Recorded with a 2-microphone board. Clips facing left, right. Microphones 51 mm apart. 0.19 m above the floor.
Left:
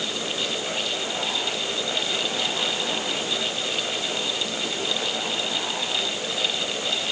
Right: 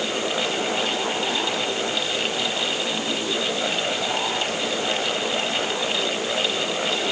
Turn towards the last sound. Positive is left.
No sound to turn to.